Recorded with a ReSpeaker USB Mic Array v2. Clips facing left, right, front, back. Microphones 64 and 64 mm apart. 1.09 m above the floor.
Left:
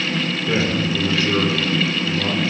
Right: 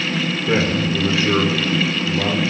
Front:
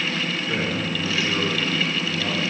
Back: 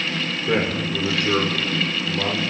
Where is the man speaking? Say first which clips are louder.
Right 2 dB, back 7 dB; 155° right, 4.5 m; by 2.5 s 140° right, 4.5 m.